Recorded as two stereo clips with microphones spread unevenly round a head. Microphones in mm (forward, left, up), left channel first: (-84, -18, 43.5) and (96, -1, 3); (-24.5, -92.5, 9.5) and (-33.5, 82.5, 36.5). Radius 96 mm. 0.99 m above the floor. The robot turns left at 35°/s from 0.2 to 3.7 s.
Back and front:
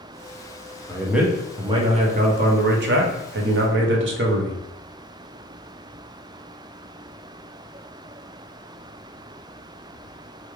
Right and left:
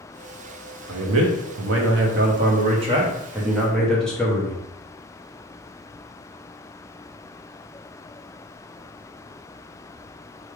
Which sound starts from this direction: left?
A man speaking, at 0.9 s.